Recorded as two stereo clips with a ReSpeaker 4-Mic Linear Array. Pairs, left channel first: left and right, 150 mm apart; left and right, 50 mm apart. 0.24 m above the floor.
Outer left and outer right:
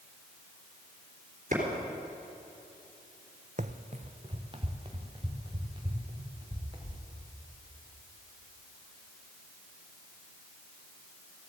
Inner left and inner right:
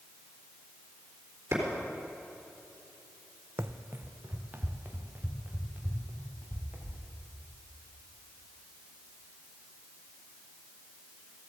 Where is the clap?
55° right (ahead or behind), 3.5 m.